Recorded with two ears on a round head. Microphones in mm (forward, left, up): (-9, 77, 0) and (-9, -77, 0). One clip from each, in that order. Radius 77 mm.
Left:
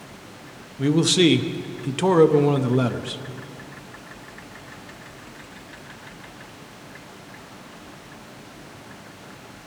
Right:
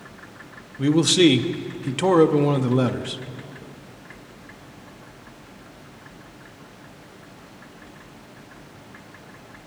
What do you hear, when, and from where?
0.8 s a man speaking: centre (ahead or behind), 0.5 m